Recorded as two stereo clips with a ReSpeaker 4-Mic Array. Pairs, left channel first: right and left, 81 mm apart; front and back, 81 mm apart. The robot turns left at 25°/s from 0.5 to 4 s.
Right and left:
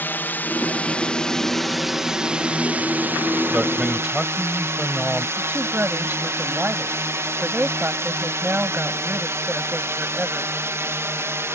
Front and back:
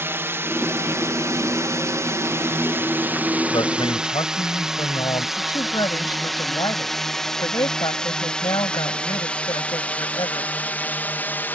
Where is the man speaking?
15° left; by 5.3 s 5° left.